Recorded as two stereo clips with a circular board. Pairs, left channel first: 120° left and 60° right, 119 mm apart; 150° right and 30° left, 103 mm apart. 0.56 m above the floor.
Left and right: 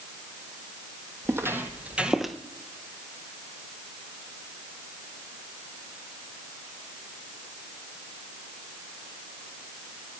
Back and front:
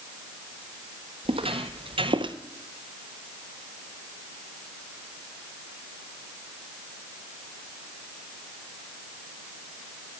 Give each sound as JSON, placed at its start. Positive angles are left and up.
{"t": 1.2, "sound": "footsteps", "azimuth_deg": 5, "distance_m": 1.4}